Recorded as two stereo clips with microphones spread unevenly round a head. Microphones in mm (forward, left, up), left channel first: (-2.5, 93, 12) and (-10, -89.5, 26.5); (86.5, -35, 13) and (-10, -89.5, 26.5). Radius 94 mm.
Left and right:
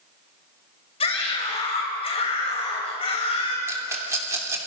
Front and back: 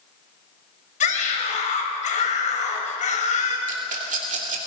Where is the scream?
25° left, 6.5 m.